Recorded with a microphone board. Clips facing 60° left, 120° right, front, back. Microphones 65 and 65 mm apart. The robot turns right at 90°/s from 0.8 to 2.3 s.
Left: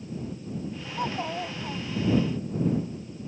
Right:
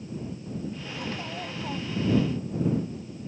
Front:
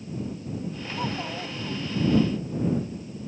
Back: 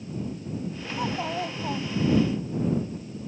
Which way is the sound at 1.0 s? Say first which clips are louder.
Left 7 dB, back 3 dB; 90° left.